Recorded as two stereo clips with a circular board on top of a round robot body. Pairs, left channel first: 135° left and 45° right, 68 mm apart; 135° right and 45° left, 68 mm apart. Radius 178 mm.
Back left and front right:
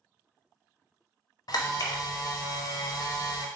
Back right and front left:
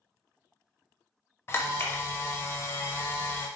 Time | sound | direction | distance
1.5 | a camera shutter | 165° left | 0.5 m